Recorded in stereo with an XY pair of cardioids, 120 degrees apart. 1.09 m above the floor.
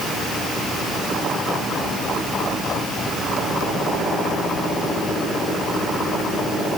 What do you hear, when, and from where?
Only background noise.